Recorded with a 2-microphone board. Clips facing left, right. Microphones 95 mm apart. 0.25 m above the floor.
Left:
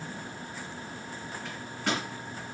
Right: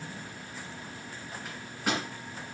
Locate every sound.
1.4 s a microwave: 10° right (ahead or behind), 1.6 m